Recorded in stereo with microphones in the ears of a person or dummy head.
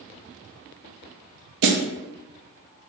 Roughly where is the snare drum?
Right.